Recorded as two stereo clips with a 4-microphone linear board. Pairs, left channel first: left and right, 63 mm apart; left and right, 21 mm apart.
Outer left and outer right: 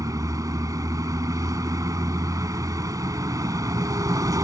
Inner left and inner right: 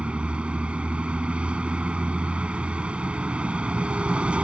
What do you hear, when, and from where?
0.0 s a vehicle: 60° right (ahead or behind)